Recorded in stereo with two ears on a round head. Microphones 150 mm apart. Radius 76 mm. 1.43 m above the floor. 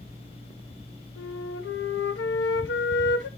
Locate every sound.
1.2 s a flute: 80° left, 0.9 m